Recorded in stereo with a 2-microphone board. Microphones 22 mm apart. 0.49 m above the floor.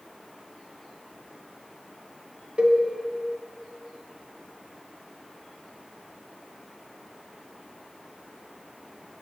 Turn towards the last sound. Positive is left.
turn(degrees=-55)  # may be behind; listen again after turning